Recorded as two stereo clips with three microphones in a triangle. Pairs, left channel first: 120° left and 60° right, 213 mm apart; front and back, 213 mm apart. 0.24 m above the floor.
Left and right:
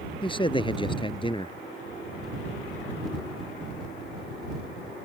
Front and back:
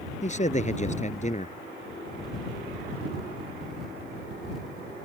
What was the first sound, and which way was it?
A man speaking, 55° left.